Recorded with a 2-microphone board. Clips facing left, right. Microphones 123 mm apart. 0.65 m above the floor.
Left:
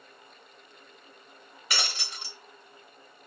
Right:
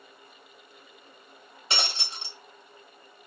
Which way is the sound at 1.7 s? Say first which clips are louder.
Right 2 dB; 25° right (ahead or behind).